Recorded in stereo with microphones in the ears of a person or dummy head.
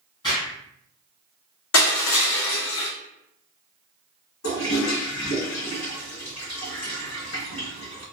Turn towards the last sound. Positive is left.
turn(degrees=80)